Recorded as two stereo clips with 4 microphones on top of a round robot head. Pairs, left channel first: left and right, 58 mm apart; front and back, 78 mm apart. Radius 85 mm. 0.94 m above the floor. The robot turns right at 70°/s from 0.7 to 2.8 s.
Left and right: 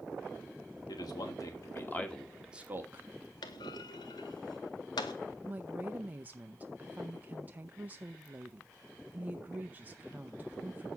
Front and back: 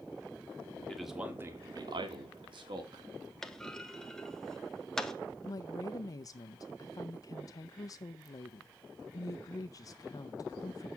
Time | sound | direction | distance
0.9 | a man speaking | 80° left | 1.9 m
3.4 | a clunk | 80° left | 0.6 m
5.4 | a woman speaking | 30° right | 0.5 m